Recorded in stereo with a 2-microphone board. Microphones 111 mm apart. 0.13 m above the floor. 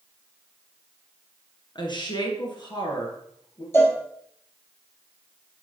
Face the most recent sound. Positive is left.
turn(degrees=20)  # may be behind; listen again after turning